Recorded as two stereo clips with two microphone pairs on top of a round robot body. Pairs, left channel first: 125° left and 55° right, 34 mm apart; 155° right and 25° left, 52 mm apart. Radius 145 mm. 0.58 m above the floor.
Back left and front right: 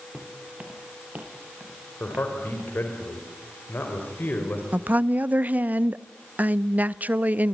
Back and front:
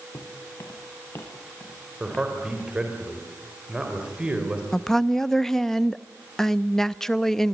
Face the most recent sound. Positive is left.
turn(degrees=-60)